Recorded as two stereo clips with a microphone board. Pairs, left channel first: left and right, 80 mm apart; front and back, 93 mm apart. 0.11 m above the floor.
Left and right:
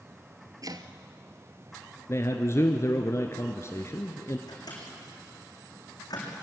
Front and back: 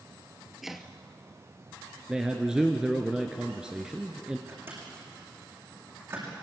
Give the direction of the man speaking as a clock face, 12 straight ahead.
9 o'clock.